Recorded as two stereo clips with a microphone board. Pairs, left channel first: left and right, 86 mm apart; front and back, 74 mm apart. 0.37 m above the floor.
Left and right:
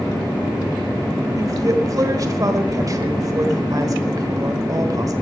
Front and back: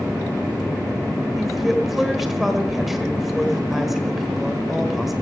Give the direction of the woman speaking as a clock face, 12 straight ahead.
3 o'clock.